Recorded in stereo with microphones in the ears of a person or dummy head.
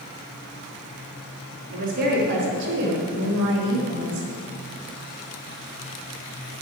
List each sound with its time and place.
1.7 s a woman speaking: 50° right (ahead or behind), 3 m; by 4.3 s 80° right, 2.5 m